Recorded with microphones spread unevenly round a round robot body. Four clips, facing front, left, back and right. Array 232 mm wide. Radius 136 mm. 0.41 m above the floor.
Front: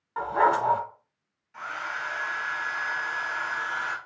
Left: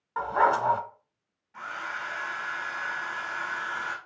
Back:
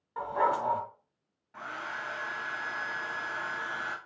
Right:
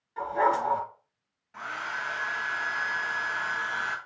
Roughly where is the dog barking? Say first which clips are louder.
Left 2 dB, front 6 dB; ahead left.